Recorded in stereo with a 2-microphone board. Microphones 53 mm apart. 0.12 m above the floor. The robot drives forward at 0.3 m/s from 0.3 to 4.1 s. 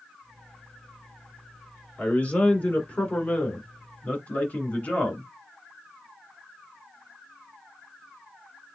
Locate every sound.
2.0 s a man speaking: 30° left (ahead or behind), 2.0 m